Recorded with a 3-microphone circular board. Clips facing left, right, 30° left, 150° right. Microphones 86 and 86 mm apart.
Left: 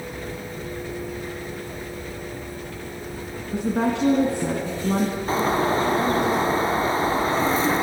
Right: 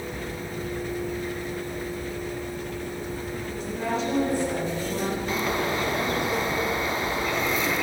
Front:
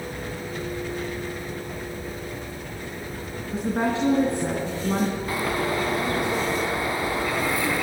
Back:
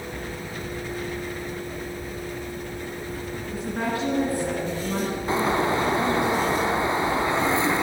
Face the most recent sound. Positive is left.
turn(degrees=145)